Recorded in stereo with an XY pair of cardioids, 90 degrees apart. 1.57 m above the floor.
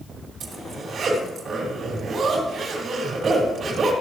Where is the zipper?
60° right, 3 m.